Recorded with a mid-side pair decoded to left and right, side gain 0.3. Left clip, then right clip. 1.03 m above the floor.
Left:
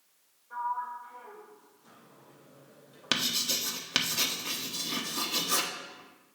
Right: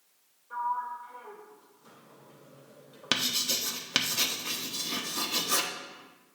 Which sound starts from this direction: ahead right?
A sliding door, at 0.5 s.